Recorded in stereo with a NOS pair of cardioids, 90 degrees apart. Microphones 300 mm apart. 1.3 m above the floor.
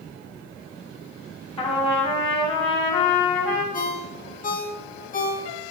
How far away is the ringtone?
About 1.3 m.